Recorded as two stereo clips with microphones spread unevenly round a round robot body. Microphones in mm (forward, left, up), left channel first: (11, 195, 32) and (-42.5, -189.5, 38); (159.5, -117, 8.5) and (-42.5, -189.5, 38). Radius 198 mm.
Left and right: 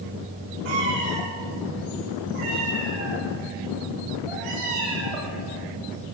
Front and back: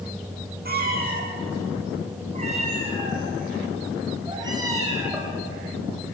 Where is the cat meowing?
115° right, 7 m; by 5.3 s 85° right, 8.5 m.